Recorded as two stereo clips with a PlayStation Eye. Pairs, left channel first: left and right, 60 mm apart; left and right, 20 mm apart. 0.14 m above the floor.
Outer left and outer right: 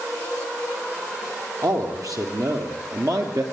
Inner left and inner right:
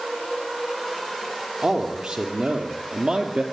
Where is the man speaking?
70° right (ahead or behind), 4 m; by 3.4 s 65° right (ahead or behind), 2.5 m.